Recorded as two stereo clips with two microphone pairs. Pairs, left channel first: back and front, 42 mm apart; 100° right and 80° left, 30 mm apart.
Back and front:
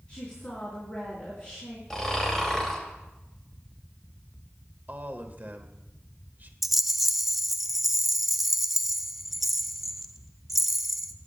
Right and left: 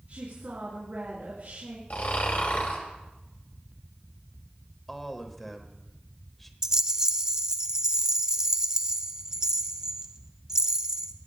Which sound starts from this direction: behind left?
A woman speaking, at 0.1 s.